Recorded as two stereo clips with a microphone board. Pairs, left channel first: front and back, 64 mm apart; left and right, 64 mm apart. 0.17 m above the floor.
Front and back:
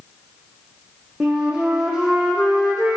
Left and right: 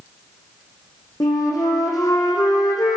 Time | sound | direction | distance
1.2 | a flute | 105° left | 1.8 m